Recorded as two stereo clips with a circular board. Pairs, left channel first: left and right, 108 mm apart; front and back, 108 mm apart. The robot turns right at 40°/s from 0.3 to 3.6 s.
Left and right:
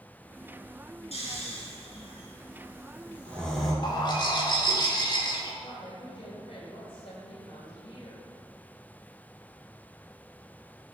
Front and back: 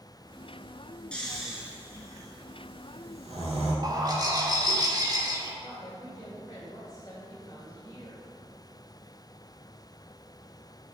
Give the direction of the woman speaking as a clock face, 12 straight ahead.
10 o'clock.